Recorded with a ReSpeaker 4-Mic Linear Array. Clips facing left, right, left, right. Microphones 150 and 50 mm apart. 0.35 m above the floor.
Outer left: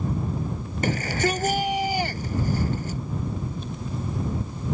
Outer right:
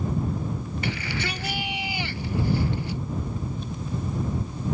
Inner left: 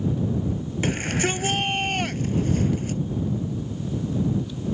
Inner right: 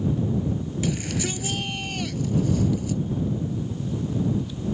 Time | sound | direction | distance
0.8 | a shout | 45° left (ahead or behind) | ?